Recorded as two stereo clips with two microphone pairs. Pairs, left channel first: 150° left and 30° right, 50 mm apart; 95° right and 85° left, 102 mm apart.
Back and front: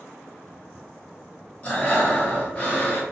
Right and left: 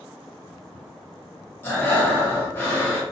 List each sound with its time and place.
1.6 s breathing: 160° right, 1.1 m